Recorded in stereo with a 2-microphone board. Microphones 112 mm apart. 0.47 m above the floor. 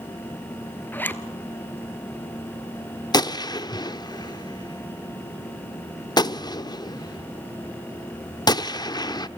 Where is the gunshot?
40° left (ahead or behind), 0.7 m.